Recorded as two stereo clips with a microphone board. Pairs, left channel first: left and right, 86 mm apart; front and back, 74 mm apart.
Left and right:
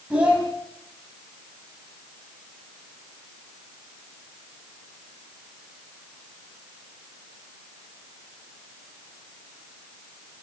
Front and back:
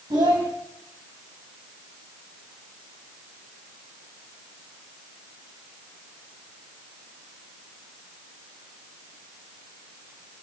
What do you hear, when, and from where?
0.1 s a child speaking: 165° right, 6 m